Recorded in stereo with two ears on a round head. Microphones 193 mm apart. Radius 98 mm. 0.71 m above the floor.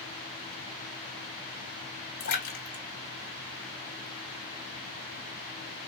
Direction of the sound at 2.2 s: 50° left (ahead or behind).